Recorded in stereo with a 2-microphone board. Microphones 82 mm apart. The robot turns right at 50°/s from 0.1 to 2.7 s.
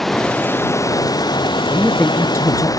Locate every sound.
0.0 s running water: straight ahead; by 2.8 s 130° left
1.7 s a woman speaking: 5° left; by 2.7 s 55° left